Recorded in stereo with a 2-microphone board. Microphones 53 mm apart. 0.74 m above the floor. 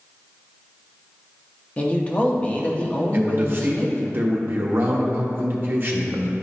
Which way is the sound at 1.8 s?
25° left (ahead or behind).